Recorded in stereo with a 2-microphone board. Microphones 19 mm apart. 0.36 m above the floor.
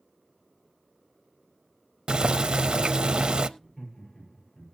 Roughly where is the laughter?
Left.